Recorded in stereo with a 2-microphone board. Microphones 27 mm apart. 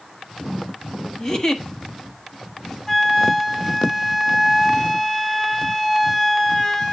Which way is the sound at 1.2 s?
30° left (ahead or behind).